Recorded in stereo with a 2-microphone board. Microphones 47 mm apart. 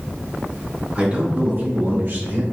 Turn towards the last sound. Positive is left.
turn(degrees=-50)  # may be behind; listen again after turning